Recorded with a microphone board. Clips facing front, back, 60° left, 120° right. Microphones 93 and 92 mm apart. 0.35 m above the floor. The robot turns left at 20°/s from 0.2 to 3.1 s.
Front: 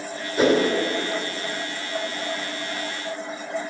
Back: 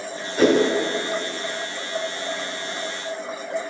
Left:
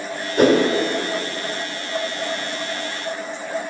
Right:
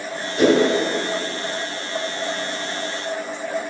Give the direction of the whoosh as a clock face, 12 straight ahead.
9 o'clock.